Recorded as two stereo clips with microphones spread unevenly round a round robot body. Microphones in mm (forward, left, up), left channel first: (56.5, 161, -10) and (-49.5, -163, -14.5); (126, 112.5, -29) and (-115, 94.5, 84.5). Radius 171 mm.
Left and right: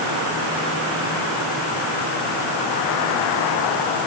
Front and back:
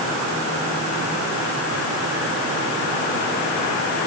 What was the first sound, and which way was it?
Only background noise.